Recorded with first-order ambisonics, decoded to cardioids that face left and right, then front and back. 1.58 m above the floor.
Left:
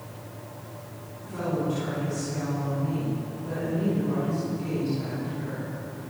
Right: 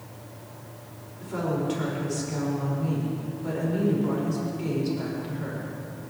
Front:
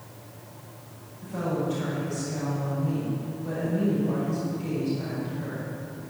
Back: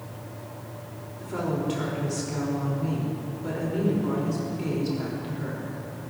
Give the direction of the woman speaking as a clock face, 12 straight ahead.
5 o'clock.